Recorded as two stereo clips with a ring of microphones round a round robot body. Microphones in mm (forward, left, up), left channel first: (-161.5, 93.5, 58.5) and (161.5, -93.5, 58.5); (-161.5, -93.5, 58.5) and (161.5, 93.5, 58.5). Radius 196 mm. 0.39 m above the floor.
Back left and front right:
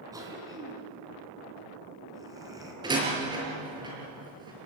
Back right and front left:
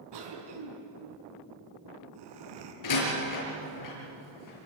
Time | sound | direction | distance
0.1 | a cough | 50° left | 5.5 m
2.8 | a door slam | 110° right | 6.5 m